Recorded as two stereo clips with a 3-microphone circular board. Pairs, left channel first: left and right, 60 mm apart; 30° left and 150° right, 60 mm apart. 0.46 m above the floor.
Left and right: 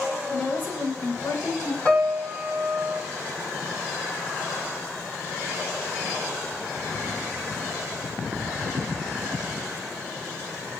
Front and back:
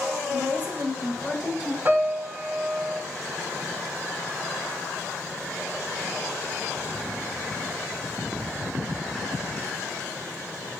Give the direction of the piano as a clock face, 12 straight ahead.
7 o'clock.